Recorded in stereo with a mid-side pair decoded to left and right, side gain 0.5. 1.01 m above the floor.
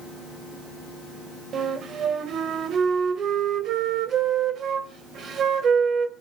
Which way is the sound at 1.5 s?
55° right.